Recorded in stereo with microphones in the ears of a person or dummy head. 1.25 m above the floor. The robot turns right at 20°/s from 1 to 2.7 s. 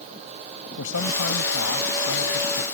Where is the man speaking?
80° left; by 2.6 s 115° left.